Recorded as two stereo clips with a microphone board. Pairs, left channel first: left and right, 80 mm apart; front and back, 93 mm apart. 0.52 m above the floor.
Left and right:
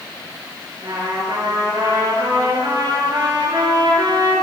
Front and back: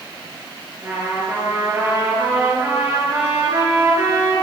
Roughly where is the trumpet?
Behind right.